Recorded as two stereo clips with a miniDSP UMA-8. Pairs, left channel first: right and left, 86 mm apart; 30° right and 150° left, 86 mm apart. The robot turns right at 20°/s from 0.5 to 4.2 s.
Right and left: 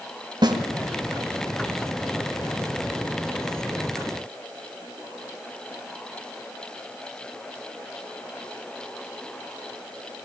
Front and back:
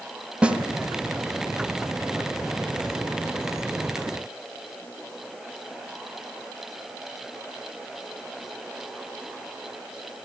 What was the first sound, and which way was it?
A snare drum, 75° left.